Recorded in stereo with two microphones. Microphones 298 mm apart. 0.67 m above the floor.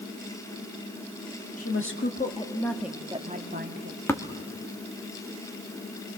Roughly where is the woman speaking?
Left.